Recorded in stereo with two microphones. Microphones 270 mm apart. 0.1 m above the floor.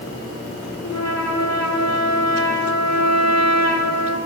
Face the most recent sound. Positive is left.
turn(degrees=75)  # may be behind; listen again after turning